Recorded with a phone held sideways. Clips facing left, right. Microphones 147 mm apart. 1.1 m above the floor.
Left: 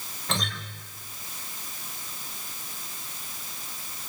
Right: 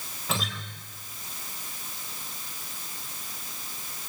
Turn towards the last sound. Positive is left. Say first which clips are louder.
# even
turn(degrees=-5)  # may be behind; listen again after turning